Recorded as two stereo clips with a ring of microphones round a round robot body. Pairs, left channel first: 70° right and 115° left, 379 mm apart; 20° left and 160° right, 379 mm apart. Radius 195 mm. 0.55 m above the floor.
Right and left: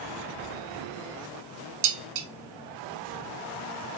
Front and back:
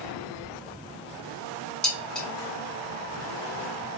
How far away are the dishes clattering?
About 0.8 m.